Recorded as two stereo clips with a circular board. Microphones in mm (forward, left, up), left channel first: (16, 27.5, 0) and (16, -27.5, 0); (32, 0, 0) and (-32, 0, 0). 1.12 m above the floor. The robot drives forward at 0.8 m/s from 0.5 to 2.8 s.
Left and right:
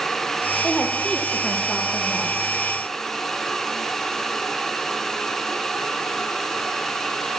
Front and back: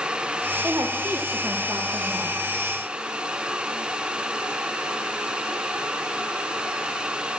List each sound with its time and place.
0.6 s a woman speaking: 150° left, 0.8 m; by 2.3 s 170° left, 2.0 m